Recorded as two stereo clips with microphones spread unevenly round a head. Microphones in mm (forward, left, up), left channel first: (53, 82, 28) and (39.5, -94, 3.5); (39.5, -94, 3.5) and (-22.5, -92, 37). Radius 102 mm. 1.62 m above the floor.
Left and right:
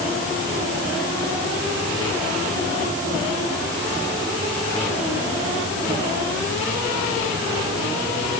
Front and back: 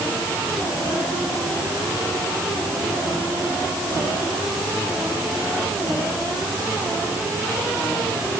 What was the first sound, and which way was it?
Only background noise.